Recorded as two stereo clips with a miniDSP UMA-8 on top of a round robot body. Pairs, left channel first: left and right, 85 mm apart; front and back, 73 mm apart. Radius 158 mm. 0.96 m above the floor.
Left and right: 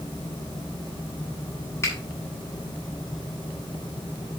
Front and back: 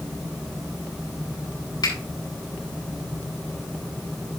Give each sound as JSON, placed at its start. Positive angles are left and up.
{"t": 1.8, "sound": "a finger snap", "azimuth_deg": 30, "distance_m": 6.5}